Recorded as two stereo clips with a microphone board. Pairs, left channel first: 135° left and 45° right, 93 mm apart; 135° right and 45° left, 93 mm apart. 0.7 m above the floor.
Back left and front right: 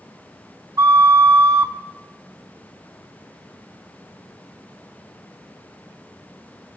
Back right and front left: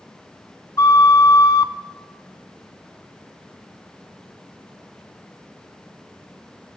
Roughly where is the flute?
Right.